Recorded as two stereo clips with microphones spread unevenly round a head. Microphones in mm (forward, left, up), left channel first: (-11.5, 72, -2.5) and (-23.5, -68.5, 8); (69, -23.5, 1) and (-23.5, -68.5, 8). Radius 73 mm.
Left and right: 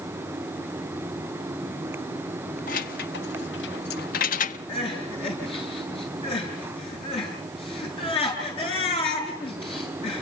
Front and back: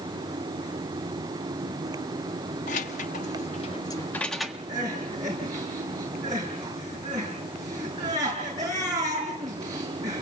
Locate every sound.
2.7 s keys jangling: 45° left, 1.2 m; by 4.6 s 125° left, 1.1 m
4.7 s crying: 140° left, 8.5 m